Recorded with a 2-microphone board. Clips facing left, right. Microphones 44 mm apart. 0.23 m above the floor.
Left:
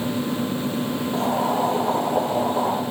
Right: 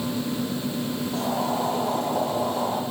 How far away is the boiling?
About 5 m.